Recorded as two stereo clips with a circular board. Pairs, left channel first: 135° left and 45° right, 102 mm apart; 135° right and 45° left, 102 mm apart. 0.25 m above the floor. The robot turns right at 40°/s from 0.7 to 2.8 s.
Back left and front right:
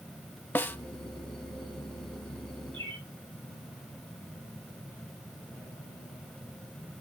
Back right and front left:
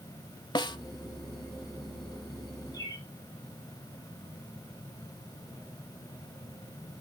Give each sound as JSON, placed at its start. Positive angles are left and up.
{"t": 0.6, "sound": "a snare drum", "azimuth_deg": -160, "distance_m": 0.7}
{"t": 2.7, "sound": "a bird", "azimuth_deg": -80, "distance_m": 6.5}